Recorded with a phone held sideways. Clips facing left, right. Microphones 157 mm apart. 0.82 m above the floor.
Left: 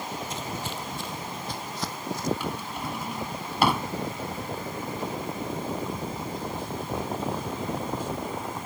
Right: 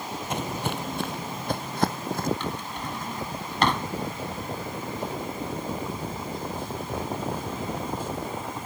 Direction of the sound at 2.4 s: 10° left (ahead or behind).